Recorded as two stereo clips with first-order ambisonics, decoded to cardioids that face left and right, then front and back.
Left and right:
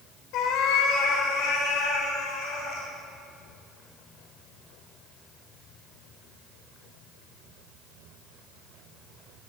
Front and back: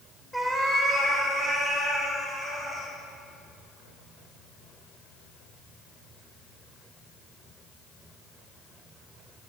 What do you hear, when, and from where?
0.3 s a cat meowing: 90° left, 1.7 m; by 2.9 s 95° left, 3 m